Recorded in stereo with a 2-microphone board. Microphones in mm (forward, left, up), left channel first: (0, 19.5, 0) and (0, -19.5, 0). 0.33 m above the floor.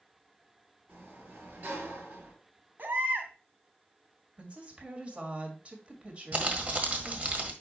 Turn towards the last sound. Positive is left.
turn(degrees=-40)  # may be behind; listen again after turning